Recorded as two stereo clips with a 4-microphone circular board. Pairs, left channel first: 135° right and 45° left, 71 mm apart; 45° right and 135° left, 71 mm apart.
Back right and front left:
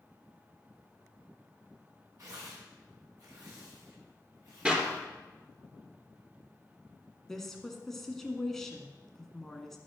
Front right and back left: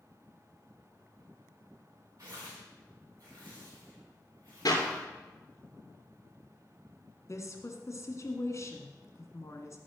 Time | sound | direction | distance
2.2 | tearing paper | 90° left | 4.5 m
4.7 | a clap | 30° right | 2.5 m
7.3 | a woman speaking | 50° right | 1.6 m